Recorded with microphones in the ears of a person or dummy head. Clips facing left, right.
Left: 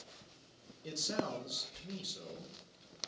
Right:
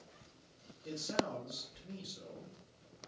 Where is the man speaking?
60° left (ahead or behind), 1.4 m.